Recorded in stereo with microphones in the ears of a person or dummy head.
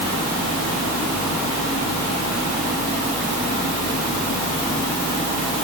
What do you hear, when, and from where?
Only background noise.